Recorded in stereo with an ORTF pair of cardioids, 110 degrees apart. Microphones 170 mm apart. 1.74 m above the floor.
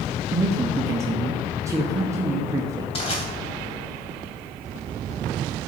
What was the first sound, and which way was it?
A man speaking, 20° right.